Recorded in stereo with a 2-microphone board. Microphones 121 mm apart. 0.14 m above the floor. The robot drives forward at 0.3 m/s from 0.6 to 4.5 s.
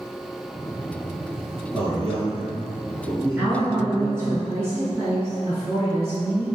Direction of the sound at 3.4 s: 25° right (ahead or behind).